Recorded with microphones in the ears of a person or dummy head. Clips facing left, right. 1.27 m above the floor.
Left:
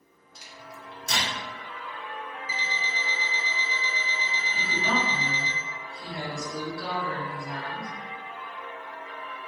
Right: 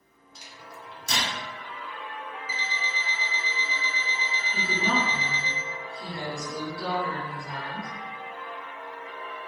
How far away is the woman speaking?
About 1.6 m.